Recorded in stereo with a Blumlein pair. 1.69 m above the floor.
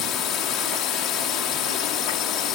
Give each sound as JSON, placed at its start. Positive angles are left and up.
{"t": 0.0, "sound": "a drone", "azimuth_deg": 35}